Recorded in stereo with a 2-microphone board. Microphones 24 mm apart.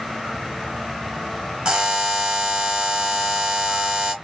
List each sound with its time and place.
1.6 s a buzzer: 45° right (ahead or behind), 1.2 m